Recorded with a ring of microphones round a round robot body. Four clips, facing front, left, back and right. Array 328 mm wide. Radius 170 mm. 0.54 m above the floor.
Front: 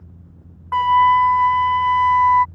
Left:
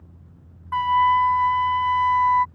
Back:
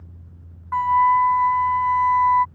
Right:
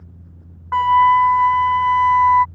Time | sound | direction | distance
0.7 | a flute | 45° right | ?